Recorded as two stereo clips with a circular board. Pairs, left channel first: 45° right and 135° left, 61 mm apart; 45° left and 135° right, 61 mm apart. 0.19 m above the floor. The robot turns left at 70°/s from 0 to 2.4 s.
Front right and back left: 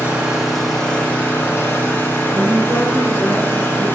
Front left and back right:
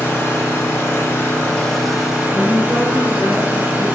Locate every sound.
0.0 s an engine running: 85° left, 1.1 m; by 4.0 s 80° right, 1.1 m
2.3 s a woman speaking: 130° right, 1.0 m; by 3.9 s 135° right, 1.0 m